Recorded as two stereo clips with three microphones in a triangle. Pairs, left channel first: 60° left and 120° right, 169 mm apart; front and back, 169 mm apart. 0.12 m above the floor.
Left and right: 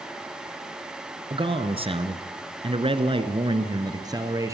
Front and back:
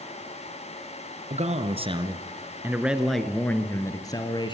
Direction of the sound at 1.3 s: 165° right.